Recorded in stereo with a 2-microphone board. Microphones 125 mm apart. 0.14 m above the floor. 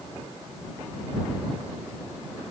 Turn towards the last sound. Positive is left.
No sound to turn to.